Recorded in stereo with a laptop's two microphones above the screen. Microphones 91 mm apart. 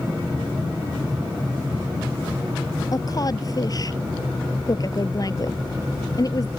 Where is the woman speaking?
40° left (ahead or behind).